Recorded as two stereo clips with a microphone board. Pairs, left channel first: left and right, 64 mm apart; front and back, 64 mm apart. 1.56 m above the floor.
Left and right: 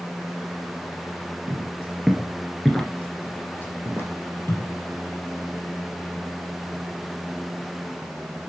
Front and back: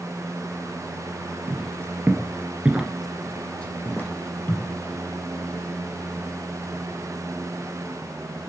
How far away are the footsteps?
About 2.5 m.